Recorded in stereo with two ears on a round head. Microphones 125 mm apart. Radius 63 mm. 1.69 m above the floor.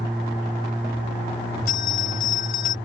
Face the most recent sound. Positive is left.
turn(degrees=65)  # may be behind; listen again after turning